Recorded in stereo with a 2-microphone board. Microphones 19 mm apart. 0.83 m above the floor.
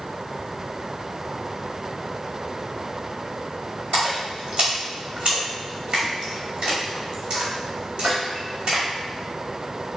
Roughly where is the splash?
Right.